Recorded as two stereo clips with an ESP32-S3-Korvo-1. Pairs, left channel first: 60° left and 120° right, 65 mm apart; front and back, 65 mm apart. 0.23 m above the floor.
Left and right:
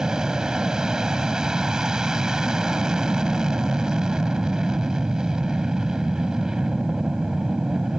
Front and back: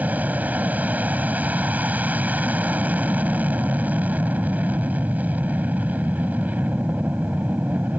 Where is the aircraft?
175° left.